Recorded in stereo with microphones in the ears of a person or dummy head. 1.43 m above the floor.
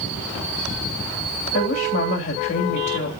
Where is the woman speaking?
40° left (ahead or behind), 3 m.